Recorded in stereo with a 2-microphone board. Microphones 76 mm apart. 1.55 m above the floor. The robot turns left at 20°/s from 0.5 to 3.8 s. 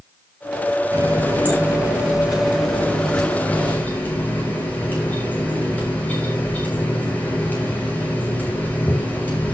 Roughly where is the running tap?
Behind right.